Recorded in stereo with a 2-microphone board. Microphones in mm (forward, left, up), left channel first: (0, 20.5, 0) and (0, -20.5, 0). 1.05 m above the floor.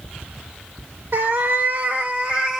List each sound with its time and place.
1.1 s a cat meowing: 60° right (ahead or behind), 1.8 m; by 2.6 s 20° right (ahead or behind), 1.9 m